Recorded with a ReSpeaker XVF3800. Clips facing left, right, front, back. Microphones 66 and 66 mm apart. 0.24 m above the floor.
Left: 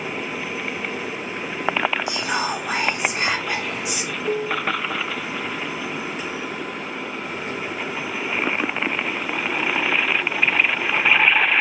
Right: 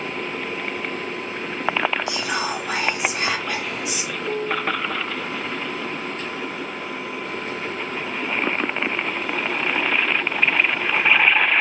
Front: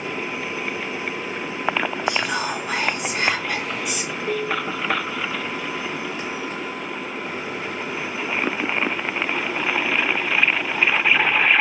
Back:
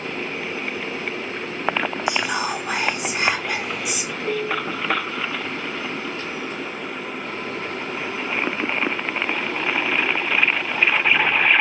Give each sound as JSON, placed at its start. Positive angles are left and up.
{"t": 2.1, "sound": "whispering", "azimuth_deg": 115, "distance_m": 1.2}
{"t": 4.2, "sound": "a piano", "azimuth_deg": 110, "distance_m": 1.0}